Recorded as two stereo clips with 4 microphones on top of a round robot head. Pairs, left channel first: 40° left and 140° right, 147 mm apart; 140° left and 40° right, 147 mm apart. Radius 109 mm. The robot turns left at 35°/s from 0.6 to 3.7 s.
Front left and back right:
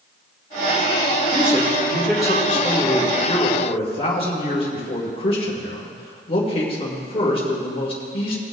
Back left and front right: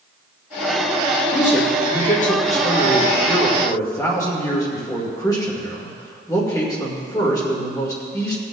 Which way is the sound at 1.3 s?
165° left.